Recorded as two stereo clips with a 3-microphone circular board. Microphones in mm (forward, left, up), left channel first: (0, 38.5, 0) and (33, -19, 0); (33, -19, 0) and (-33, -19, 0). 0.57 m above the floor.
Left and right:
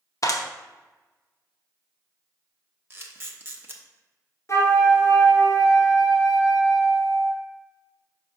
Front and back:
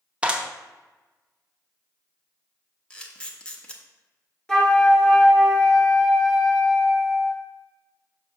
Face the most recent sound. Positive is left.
turn(degrees=75)